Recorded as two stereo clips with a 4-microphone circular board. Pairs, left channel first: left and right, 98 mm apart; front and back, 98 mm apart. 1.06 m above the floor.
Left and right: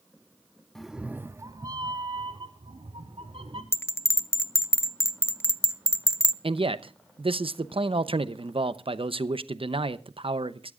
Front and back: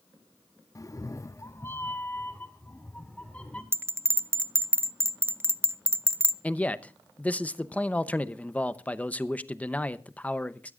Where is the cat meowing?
10° left, 0.5 m; by 3.6 s 75° right, 1.6 m.